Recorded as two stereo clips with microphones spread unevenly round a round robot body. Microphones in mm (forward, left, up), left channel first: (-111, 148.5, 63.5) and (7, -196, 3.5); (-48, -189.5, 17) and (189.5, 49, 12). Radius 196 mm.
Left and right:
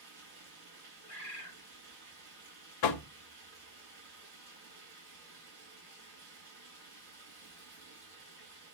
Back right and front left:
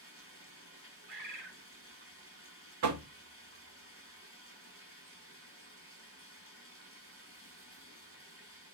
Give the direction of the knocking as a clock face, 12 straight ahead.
9 o'clock.